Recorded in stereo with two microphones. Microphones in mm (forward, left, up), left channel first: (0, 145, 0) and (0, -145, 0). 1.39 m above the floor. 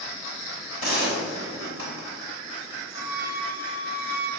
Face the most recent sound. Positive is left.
turn(degrees=-10)  # may be behind; listen again after turning